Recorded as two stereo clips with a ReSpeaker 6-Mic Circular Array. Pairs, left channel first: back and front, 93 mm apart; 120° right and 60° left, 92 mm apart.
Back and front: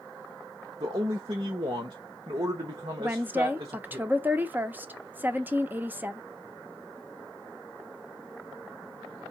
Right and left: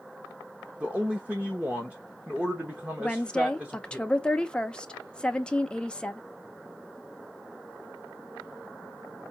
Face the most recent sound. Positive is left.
turn(degrees=-50)